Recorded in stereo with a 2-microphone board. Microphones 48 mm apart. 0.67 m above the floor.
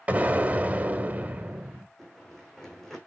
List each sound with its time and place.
0.1 s an explosion: 30° right (ahead or behind), 1.5 m
2.0 s running footsteps: 10° left (ahead or behind), 3 m